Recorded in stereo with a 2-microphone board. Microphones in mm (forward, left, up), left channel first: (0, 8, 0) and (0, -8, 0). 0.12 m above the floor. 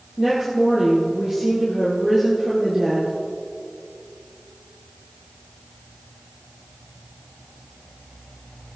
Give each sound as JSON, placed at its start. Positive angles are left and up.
{"t": 0.2, "sound": "a woman speaking", "side_deg": -35, "distance_m": 3.0}